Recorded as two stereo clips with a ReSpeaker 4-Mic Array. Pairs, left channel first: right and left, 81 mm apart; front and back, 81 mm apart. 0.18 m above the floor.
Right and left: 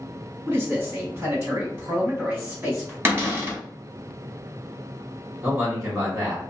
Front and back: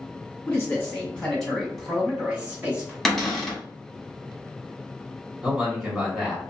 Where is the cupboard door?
85° left, 0.8 m.